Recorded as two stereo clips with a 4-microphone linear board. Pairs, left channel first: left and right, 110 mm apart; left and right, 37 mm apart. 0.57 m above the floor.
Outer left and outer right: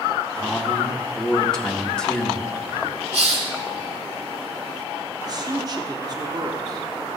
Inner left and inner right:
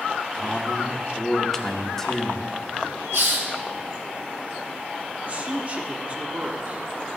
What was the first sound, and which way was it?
A man speaking, 5° left (ahead or behind).